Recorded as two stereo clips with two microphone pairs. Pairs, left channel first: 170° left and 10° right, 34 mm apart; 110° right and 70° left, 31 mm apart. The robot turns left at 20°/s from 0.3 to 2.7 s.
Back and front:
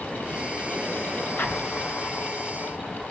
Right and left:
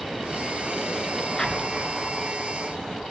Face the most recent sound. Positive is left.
turn(degrees=150)